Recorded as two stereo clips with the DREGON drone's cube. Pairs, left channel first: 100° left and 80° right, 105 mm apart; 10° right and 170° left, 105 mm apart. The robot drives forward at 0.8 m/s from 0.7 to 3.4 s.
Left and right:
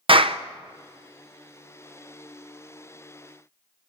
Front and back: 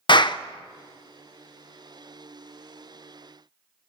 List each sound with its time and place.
0.1 s a clap: 55° right, 0.6 m